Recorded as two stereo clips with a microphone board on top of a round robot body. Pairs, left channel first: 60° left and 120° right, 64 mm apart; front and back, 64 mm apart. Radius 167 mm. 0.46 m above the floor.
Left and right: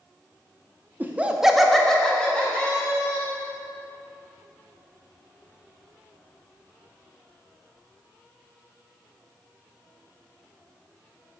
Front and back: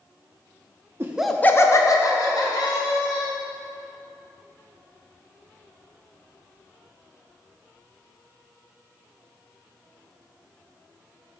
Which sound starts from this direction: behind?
Laughter, at 1.0 s.